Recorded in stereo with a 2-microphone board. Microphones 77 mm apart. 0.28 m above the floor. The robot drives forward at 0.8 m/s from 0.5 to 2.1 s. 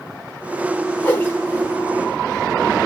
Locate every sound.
1.0 s a whoosh: 20° left (ahead or behind), 1.3 m; by 1.7 s 25° left (ahead or behind), 1.1 m